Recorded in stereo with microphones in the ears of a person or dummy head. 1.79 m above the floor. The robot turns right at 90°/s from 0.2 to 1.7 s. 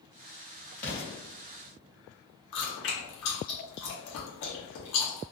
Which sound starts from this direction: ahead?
An explosion, at 0.8 s.